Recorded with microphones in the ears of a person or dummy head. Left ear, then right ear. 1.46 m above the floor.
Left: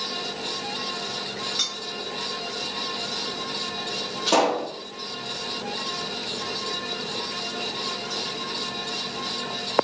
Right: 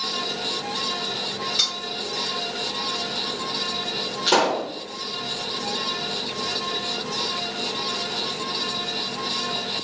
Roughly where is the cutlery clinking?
Centre.